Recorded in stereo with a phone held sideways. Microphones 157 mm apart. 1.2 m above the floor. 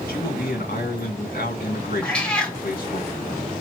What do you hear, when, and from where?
0.1 s a man speaking: 65° left (ahead or behind), 1.8 m
2.0 s a cat meowing: 5° left (ahead or behind), 0.8 m